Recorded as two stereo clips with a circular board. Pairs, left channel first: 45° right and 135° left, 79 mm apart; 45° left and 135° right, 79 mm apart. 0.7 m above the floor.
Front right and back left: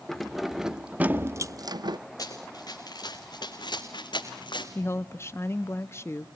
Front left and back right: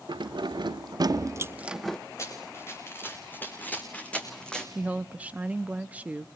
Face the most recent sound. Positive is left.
turn(degrees=-75)